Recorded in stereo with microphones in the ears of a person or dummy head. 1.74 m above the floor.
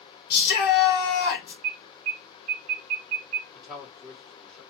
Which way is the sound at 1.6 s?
25° right (ahead or behind).